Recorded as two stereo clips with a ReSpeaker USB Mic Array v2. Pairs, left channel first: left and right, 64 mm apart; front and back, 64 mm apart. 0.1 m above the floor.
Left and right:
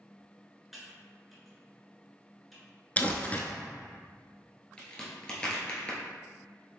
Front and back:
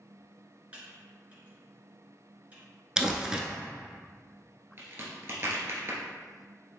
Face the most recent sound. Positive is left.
turn(degrees=160)